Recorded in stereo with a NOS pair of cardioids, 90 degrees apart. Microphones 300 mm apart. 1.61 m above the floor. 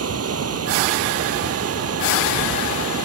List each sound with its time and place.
0.0 s running water: 50° right